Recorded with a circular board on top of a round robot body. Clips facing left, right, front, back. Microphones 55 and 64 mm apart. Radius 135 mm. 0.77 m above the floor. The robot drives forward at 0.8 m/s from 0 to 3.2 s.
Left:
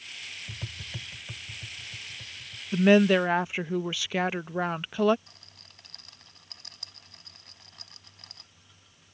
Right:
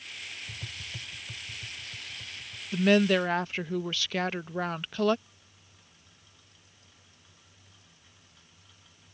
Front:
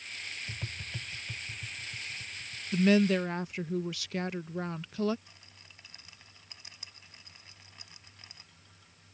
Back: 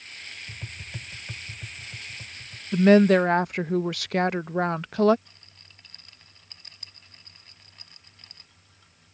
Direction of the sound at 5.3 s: 85° left.